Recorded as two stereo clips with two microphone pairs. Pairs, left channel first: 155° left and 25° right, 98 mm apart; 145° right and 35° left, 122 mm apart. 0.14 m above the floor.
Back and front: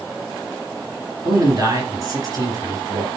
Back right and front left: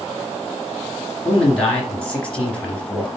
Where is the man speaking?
65° right, 2.5 m.